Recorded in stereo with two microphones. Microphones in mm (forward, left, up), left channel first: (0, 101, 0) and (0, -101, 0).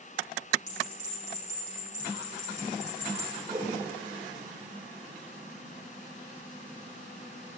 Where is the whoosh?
15° right (ahead or behind), 3.5 m.